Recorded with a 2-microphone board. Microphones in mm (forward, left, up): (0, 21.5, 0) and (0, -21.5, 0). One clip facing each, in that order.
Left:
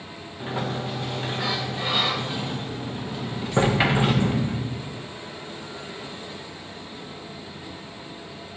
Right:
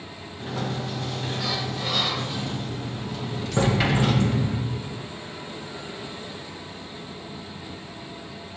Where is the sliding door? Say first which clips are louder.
Left 1 dB; 20° left (ahead or behind), 1.2 m.